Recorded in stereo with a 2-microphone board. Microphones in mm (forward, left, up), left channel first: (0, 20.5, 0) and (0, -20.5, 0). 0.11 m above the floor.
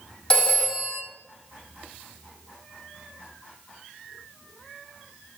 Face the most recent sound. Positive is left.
turn(degrees=20)  # may be behind; listen again after turning